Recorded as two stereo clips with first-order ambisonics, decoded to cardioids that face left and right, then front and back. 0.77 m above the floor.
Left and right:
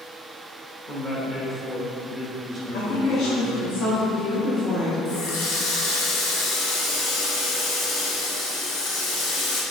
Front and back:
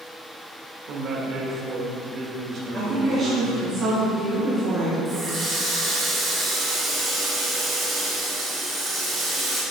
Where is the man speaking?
155° left, 1.1 m.